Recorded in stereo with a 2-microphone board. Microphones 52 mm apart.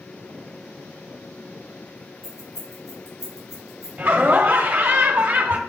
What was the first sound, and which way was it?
Keys jangling, 65° left (ahead or behind).